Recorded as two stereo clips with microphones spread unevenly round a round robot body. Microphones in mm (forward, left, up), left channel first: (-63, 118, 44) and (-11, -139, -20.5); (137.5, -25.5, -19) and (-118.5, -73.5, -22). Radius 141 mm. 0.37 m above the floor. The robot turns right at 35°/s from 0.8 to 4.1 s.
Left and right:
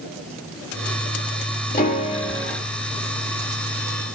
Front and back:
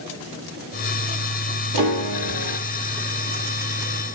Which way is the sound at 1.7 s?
160° left.